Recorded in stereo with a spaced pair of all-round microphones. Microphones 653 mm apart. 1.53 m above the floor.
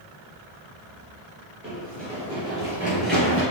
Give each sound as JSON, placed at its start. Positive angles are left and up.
{"t": 1.6, "sound": "running footsteps", "side_deg": -15, "distance_m": 1.5}